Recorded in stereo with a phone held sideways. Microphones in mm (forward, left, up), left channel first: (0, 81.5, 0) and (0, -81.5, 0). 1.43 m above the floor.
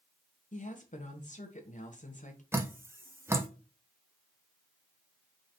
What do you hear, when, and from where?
0.5 s a woman speaking: 50° left (ahead or behind), 0.9 m
2.5 s dripping: 15° right (ahead or behind), 0.7 m